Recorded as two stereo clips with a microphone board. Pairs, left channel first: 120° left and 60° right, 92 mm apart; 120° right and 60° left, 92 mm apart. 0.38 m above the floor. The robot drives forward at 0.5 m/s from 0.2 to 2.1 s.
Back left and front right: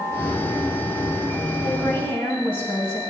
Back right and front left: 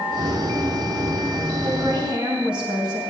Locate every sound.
1.6 s a woman speaking: 90° left, 3 m; by 3.0 s 95° left, 3 m